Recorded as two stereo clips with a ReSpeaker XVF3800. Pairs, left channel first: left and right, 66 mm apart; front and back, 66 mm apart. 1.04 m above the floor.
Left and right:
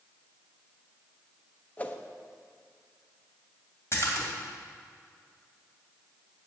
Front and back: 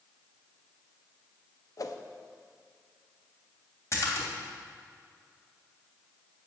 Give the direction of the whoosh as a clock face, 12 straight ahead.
11 o'clock.